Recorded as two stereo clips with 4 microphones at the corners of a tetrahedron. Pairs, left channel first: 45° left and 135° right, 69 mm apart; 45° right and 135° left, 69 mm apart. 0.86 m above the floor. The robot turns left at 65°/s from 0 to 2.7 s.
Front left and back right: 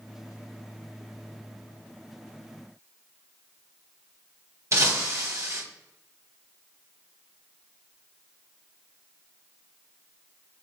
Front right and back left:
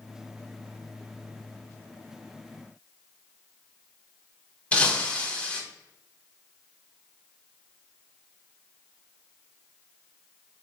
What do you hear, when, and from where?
4.7 s breaking glass: 105° right, 1.0 m